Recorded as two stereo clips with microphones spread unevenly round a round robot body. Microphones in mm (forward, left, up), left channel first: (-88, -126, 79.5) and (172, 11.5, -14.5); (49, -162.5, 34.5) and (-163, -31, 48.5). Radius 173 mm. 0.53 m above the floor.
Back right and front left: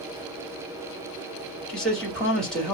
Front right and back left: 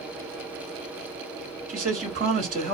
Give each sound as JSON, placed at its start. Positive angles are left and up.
{"t": 1.7, "sound": "a man speaking", "azimuth_deg": 100, "distance_m": 1.5}